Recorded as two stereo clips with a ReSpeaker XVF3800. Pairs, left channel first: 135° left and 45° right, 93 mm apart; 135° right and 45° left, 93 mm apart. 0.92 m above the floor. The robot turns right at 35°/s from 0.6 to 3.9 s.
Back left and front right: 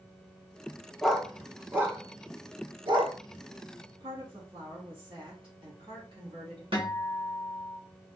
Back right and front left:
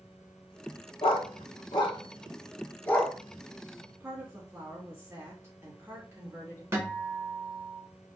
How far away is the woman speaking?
About 1.9 m.